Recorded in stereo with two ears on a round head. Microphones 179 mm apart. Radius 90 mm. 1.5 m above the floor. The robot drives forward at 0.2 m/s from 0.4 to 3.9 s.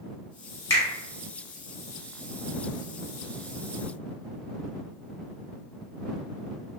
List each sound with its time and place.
0.7 s a finger snap: 15° left (ahead or behind), 1.4 m